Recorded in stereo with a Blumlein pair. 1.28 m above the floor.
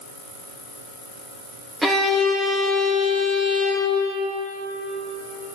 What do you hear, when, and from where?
1.8 s a violin: 5° right, 1.2 m